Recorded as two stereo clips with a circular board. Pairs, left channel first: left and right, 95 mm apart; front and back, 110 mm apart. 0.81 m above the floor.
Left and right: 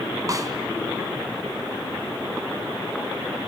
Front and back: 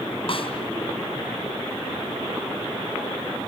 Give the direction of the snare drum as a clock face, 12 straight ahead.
1 o'clock.